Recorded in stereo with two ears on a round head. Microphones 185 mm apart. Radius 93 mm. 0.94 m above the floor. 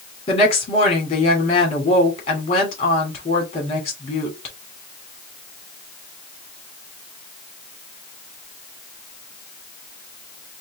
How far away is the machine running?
No machine running in this recording.